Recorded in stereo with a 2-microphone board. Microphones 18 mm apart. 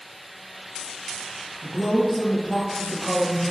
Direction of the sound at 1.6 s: 40° left (ahead or behind).